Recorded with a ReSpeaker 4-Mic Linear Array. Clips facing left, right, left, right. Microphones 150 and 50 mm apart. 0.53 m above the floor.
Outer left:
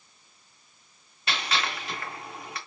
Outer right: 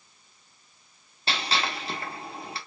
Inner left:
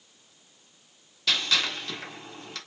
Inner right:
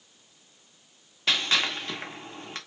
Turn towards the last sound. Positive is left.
turn(degrees=-30)  # may be behind; listen again after turning